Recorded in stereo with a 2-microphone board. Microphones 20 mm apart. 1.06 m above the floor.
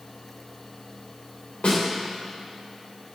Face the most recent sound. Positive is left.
turn(degrees=75)  # may be behind; listen again after turning